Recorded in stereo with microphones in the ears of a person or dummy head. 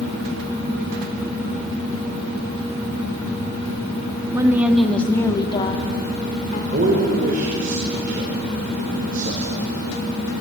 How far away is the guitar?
No guitar in this recording.